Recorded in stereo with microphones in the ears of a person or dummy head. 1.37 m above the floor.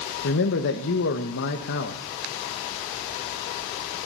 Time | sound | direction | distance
0.2 | a man speaking | 70° left (ahead or behind) | 1.2 m